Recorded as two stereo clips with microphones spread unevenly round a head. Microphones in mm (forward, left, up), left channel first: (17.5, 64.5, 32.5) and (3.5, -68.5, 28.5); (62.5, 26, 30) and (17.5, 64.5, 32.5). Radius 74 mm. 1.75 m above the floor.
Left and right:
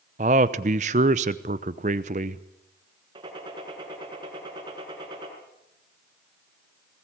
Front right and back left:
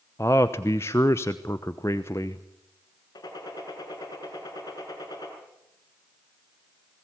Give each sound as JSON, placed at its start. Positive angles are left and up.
{"t": 0.2, "sound": "a man speaking", "azimuth_deg": -95, "distance_m": 0.8}
{"t": 3.1, "sound": "a gunshot", "azimuth_deg": -40, "distance_m": 5.0}